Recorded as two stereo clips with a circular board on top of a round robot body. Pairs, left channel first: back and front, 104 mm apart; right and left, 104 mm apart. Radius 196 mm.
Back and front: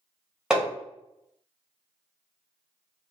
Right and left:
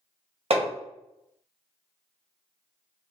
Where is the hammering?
80° left, 1.6 m.